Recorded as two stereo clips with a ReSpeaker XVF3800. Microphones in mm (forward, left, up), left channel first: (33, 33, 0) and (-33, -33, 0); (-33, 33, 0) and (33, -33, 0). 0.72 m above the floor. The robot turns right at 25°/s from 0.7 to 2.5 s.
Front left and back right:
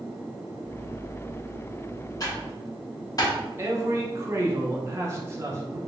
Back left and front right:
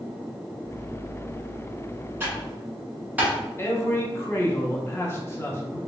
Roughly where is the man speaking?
Behind.